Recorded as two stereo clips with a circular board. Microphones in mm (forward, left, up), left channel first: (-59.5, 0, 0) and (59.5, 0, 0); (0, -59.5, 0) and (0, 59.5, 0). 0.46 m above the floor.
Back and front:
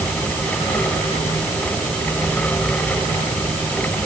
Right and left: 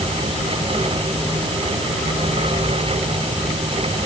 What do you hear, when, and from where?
Only background noise.